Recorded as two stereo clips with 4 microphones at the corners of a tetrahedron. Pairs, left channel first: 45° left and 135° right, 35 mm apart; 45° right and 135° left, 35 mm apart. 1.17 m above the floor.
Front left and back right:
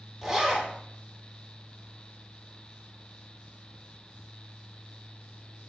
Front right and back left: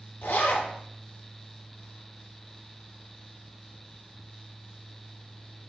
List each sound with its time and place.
0.2 s a zipper: 55° right, 1.3 m